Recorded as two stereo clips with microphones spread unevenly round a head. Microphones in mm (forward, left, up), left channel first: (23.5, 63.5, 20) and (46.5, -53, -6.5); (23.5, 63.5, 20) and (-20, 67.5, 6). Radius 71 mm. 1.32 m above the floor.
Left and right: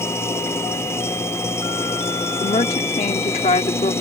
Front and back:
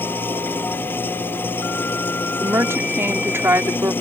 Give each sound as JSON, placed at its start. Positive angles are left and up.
{"t": 0.0, "sound": "an engine running", "azimuth_deg": 35}
{"t": 2.4, "sound": "a woman speaking", "azimuth_deg": 150}